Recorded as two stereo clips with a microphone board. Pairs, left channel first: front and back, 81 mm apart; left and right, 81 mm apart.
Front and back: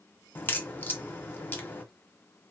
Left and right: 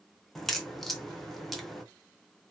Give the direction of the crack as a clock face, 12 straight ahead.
12 o'clock.